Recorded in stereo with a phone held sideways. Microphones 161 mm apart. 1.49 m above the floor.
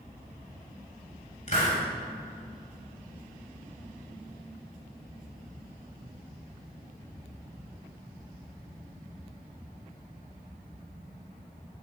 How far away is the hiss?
About 1.8 m.